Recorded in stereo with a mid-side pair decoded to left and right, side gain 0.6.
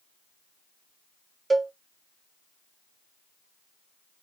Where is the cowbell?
10° right, 0.7 m.